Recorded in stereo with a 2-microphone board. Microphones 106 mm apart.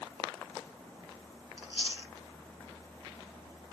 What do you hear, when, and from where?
1.6 s chewing: 60° left (ahead or behind), 0.6 m